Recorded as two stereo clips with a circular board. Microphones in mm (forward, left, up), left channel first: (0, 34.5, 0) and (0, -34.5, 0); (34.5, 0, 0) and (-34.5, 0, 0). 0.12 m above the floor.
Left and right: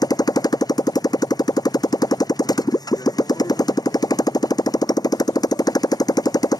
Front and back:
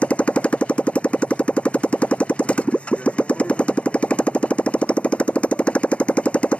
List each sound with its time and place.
0.0 s a motorcycle: 75° left